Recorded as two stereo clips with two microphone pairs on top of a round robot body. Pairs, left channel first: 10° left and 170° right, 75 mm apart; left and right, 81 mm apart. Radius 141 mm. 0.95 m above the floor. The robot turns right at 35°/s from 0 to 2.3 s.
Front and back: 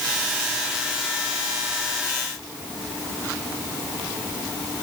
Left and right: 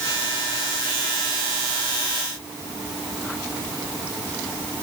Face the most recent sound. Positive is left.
No sound to turn to.